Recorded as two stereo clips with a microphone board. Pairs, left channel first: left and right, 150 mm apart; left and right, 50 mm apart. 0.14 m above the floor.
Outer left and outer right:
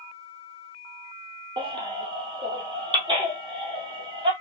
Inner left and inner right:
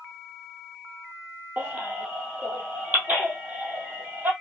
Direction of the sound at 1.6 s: 35° right (ahead or behind).